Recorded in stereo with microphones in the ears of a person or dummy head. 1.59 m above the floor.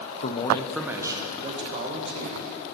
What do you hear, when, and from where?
0.2 s a man speaking: 40° left (ahead or behind), 0.7 m; by 2.5 s 40° right (ahead or behind), 2.5 m